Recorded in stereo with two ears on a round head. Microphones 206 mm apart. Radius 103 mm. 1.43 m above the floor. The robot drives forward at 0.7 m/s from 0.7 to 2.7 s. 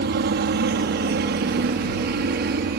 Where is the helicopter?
45° right (ahead or behind).